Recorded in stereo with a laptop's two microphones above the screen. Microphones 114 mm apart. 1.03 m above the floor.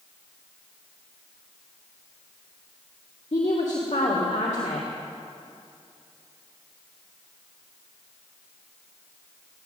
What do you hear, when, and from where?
3.3 s a woman speaking: 85° left, 1.9 m